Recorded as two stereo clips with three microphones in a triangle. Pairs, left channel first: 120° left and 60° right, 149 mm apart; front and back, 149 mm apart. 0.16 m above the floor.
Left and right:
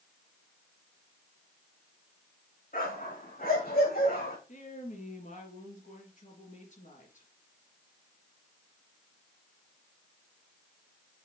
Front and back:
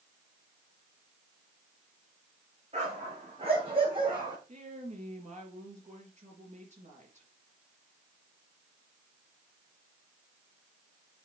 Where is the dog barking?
135° left, 5 m; by 4.4 s 120° left, 4.5 m.